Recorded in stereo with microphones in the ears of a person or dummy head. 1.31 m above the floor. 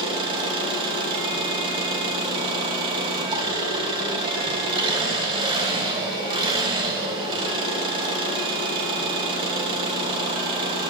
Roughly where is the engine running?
Right.